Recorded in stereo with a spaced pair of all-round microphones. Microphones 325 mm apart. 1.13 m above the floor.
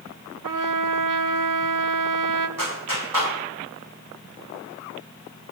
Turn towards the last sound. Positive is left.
turn(degrees=-85)